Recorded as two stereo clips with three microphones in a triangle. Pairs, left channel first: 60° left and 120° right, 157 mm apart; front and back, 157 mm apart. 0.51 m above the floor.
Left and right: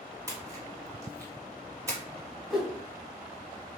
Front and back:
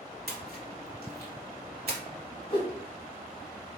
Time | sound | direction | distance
0.3 | a splash | 175° left | 0.8 m
2.5 | a whoosh | 30° right | 0.7 m